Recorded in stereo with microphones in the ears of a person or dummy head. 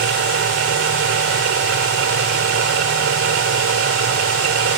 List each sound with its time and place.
0.0 s a machine running: 85° right